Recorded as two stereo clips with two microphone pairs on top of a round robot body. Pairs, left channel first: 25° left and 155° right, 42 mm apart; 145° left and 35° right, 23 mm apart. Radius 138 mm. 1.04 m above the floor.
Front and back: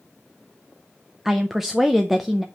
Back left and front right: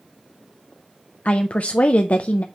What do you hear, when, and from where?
1.2 s a woman speaking: 120° left, 0.6 m